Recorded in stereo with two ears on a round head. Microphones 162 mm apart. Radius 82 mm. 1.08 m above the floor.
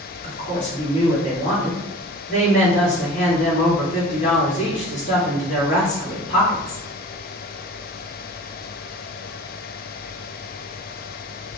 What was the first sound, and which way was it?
A woman speaking, 35° left (ahead or behind).